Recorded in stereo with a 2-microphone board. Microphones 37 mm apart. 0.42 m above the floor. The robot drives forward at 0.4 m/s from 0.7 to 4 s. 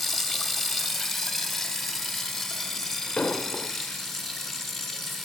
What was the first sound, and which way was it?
Running water, centre (ahead or behind).